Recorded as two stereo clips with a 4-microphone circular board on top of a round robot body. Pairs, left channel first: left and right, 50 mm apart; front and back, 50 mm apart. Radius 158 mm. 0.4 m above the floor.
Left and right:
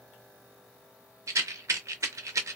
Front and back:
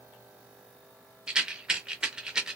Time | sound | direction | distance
1.3 | a rattle | 105° right | 0.5 m